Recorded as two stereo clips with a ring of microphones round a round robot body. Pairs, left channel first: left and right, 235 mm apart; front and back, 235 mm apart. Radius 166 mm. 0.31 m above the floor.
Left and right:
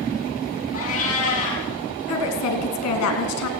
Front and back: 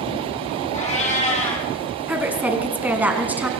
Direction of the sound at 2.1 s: 95° left.